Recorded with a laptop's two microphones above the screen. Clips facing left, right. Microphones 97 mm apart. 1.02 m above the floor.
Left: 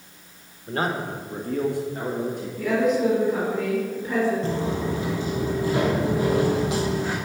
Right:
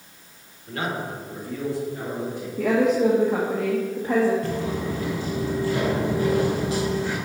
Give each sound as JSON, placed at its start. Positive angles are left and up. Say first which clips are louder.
{"t": 0.7, "sound": "a man speaking", "louder": "left 3 dB", "side_deg": 35, "distance_m": 1.2}
{"t": 2.6, "sound": "a woman speaking", "louder": "right 2 dB", "side_deg": -70, "distance_m": 1.5}
{"t": 4.4, "sound": "footsteps", "louder": "left 1 dB", "side_deg": 25, "distance_m": 1.5}